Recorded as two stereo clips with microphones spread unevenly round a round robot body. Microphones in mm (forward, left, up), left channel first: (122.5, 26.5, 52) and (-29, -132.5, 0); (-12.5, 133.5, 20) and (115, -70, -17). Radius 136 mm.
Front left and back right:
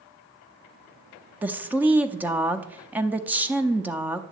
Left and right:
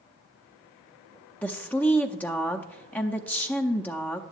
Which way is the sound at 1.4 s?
140° right.